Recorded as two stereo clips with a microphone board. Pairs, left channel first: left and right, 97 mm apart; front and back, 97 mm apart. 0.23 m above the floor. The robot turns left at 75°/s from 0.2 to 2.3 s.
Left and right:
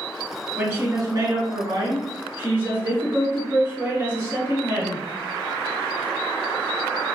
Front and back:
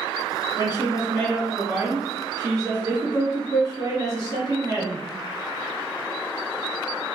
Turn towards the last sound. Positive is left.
turn(degrees=-150)